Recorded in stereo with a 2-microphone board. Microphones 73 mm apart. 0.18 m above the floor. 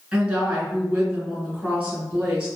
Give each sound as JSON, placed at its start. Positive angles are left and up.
{"t": 0.1, "sound": "a woman speaking", "side_deg": -10, "distance_m": 1.8}